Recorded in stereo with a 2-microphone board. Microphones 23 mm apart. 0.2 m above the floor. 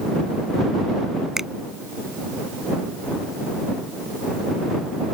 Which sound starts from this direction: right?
A finger snap, at 1.4 s.